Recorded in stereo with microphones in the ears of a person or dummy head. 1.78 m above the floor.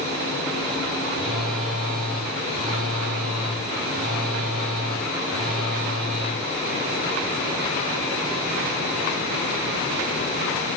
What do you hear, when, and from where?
1.1 s a phone buzzing: 5° left (ahead or behind), 1.7 m